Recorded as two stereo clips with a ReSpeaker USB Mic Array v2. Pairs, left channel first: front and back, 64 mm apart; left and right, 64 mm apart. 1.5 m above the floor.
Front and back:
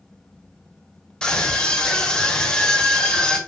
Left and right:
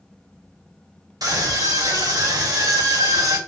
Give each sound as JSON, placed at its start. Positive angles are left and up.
{"t": 1.2, "sound": "a scream", "azimuth_deg": -75, "distance_m": 3.0}